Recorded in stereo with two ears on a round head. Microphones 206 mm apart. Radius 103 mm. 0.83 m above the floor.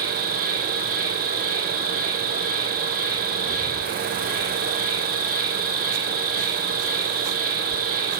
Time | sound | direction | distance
0.0 | an insect | 40° right (ahead or behind) | 3 m